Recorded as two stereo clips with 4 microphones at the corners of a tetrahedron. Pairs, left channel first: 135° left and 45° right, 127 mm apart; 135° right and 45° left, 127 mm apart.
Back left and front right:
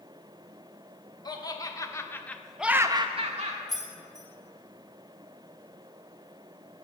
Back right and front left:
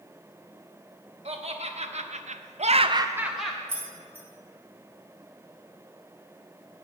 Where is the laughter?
80° left, 1.4 m; by 3.6 s 50° right, 0.7 m.